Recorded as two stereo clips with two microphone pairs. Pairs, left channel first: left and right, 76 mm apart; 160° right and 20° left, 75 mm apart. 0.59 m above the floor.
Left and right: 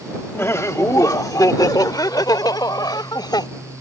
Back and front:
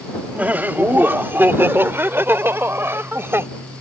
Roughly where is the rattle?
I don't hear a rattle.